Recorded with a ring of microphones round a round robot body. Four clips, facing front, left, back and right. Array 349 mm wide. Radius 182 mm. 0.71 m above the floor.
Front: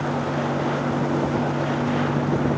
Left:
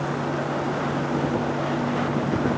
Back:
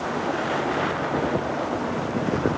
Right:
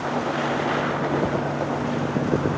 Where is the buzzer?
I don't hear a buzzer.